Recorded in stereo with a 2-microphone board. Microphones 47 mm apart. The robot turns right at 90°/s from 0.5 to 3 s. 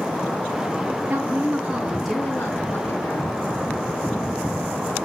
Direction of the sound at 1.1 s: 85° right.